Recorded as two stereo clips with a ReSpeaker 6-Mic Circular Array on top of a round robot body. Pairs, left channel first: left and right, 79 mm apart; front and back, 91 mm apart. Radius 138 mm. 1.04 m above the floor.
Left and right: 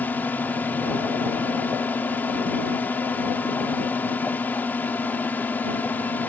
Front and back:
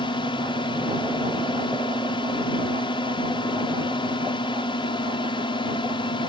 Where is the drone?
25° left.